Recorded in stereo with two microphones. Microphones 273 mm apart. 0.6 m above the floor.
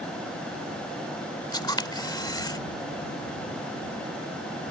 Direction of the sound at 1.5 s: 15° left (ahead or behind).